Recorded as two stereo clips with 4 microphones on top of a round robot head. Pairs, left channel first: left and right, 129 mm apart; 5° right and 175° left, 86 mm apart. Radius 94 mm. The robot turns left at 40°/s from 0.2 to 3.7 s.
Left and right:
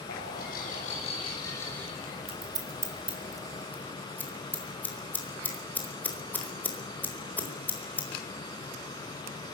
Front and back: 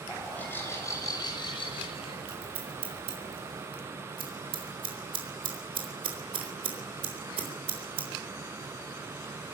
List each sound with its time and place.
0.1 s a bird: 70° left, 7 m; by 2.2 s 5° right, 7 m
2.3 s scissors: 135° right, 4 m; by 8.1 s 165° left, 4 m